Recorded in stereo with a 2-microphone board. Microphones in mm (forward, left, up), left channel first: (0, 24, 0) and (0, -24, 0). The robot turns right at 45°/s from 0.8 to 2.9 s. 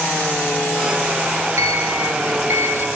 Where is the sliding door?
105° right, 1.8 m; by 2.9 s 45° right, 1.8 m.